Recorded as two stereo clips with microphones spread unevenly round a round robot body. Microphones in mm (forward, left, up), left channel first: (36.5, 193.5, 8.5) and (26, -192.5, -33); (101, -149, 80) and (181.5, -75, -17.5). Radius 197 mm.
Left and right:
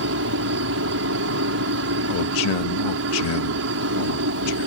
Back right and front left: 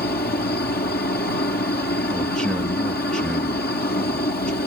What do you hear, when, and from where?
0.0 s a helicopter: 145° right
2.1 s a man speaking: 110° left